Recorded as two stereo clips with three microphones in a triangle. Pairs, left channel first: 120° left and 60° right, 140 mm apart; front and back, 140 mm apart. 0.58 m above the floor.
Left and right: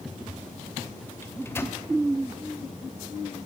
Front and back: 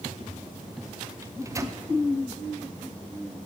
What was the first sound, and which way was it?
A microwave, 165° left.